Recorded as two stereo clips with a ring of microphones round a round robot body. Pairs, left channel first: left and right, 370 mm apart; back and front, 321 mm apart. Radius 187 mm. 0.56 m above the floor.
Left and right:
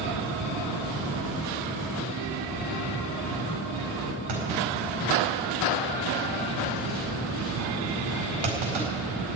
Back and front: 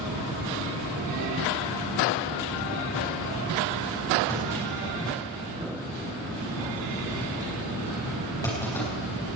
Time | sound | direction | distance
4.3 | a clunk | 100° right | 4.5 m